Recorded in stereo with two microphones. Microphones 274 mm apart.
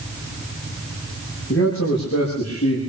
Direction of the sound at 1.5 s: 50° left (ahead or behind).